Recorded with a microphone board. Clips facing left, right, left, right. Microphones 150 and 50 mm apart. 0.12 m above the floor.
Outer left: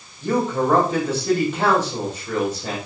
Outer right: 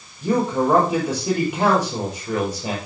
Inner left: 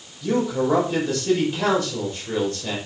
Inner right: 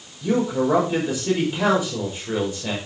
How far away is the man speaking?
About 7 m.